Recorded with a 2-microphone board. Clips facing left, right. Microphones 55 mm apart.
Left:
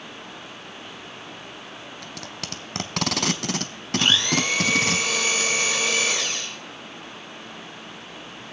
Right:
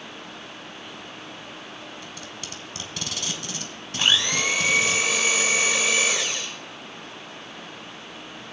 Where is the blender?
15° right (ahead or behind), 1.9 m.